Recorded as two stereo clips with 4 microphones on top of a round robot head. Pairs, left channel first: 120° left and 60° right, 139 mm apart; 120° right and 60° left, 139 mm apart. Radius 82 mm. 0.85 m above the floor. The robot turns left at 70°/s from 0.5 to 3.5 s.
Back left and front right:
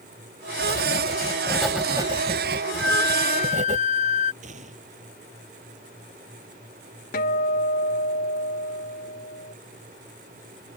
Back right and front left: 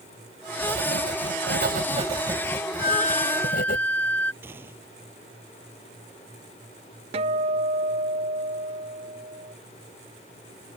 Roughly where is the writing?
Left.